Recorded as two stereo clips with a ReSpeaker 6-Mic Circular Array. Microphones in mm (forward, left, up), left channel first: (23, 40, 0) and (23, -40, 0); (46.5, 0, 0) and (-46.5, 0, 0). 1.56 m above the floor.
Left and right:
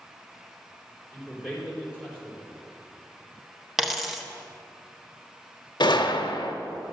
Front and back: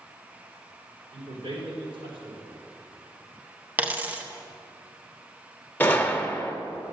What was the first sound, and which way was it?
A man speaking, 160° right.